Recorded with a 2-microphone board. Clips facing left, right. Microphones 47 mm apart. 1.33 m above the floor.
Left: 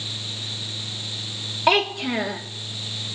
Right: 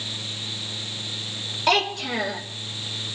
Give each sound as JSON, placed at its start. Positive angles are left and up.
{"t": 1.7, "sound": "a child speaking", "side_deg": 15, "distance_m": 1.8}